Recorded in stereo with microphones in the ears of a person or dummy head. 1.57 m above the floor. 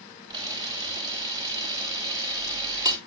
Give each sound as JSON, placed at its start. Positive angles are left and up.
{"t": 0.3, "sound": "a camera shutter", "side_deg": -20, "distance_m": 3.0}